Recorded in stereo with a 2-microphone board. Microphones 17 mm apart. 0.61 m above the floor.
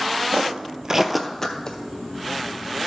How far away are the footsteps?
About 1.2 m.